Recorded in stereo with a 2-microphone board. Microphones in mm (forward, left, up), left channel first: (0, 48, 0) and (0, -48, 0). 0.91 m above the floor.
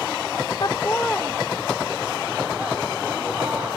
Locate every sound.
0.6 s laughter: 45° left (ahead or behind), 0.6 m; by 3.7 s 20° right (ahead or behind), 3.5 m